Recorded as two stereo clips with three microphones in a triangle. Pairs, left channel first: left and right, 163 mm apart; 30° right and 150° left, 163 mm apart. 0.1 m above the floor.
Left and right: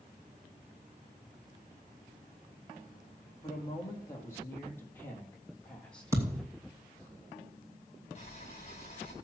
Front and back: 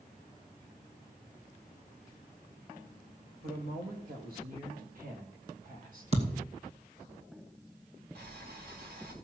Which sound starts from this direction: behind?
A thud, at 6.1 s.